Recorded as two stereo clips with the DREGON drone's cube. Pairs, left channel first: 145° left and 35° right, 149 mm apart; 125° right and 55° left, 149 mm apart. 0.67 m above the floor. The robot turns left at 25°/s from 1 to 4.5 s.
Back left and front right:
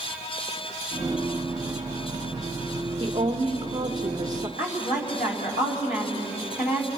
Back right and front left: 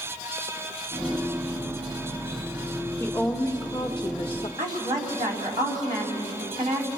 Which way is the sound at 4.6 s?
120° left.